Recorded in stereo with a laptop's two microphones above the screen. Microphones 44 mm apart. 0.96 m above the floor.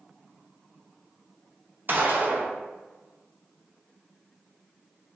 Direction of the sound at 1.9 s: 50° right (ahead or behind).